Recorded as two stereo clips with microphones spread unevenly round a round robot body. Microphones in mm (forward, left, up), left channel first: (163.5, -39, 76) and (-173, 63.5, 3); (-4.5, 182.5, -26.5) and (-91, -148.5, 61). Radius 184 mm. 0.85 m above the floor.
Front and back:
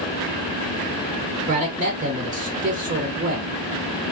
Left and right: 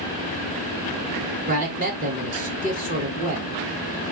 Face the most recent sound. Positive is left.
turn(degrees=-175)